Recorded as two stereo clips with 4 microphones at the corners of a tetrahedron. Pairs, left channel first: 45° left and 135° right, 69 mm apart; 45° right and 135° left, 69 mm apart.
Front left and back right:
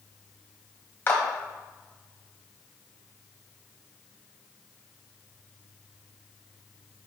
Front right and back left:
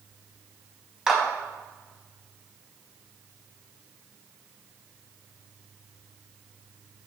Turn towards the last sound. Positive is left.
turn(degrees=60)